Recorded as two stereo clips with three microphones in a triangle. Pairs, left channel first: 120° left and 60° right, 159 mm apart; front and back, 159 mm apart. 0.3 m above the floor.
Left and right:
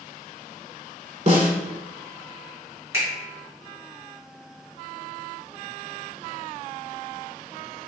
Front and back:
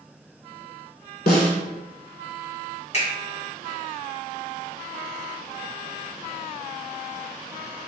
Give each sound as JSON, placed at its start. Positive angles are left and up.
{"t": 1.3, "sound": "a snare drum", "azimuth_deg": -15, "distance_m": 0.6}
{"t": 2.9, "sound": "a finger snap", "azimuth_deg": 0, "distance_m": 1.5}